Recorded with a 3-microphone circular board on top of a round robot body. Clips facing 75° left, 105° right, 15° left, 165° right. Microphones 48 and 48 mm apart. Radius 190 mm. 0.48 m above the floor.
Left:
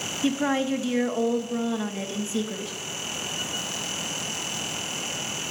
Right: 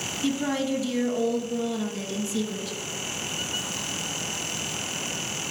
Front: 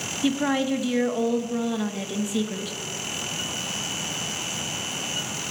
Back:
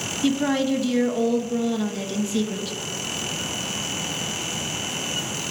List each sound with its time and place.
0.2 s a woman speaking: 80° left, 1.3 m